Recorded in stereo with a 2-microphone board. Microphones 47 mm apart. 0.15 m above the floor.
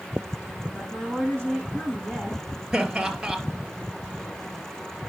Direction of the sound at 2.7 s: 15° right (ahead or behind).